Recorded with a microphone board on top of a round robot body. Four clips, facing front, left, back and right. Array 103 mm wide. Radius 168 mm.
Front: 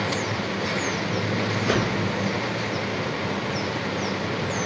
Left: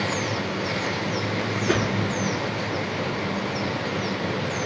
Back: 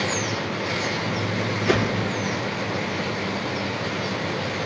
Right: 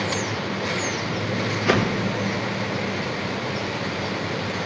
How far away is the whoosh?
About 1.6 m.